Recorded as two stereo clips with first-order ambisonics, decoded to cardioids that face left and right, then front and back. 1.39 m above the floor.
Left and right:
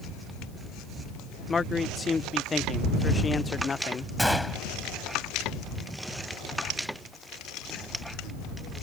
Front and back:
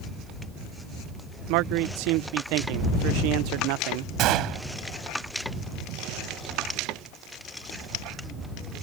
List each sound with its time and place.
1.5 s a man speaking: 165° left
4.2 s a gunshot: 175° left